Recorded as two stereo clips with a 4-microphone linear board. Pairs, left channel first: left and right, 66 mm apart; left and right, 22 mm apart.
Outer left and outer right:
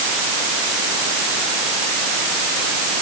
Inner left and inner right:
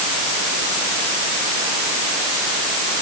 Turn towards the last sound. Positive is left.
No sound to turn to.